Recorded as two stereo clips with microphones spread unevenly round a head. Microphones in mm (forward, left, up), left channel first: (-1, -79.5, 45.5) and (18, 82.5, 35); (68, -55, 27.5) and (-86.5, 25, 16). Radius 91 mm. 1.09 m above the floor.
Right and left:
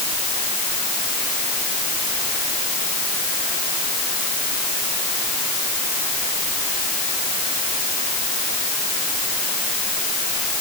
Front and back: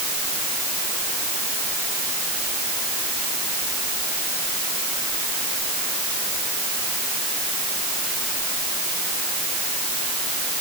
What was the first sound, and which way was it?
Only background noise.